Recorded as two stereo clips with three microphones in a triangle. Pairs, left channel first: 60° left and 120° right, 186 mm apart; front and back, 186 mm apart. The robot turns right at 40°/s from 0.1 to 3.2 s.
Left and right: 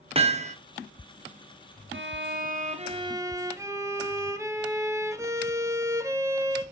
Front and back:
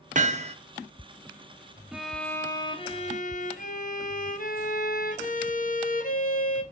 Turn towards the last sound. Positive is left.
turn(degrees=-45)